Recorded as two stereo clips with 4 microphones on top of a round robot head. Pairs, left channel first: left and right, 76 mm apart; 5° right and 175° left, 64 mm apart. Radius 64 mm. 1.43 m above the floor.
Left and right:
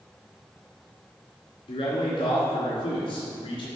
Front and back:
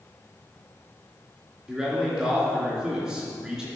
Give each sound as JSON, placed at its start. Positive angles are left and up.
{"t": 1.7, "sound": "a man speaking", "azimuth_deg": 95, "distance_m": 3.0}